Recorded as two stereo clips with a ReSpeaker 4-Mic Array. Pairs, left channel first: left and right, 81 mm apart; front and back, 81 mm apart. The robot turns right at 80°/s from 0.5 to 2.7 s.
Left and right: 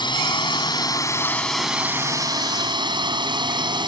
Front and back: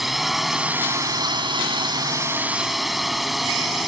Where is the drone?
90° left; by 3.9 s 90° right.